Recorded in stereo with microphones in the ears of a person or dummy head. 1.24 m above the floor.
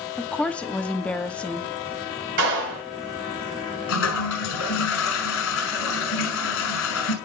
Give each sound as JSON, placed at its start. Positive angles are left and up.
{"t": 0.2, "sound": "a woman speaking", "side_deg": 5, "distance_m": 1.2}
{"t": 2.4, "sound": "a clap", "side_deg": -65, "distance_m": 6.0}
{"t": 3.9, "sound": "a toilet flushing", "side_deg": 75, "distance_m": 6.0}